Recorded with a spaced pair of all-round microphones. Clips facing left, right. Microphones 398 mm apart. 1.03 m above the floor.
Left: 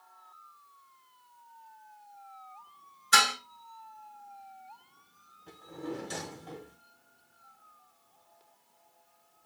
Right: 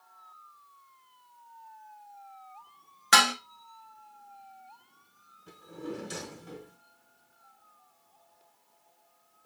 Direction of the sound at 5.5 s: 20° right (ahead or behind).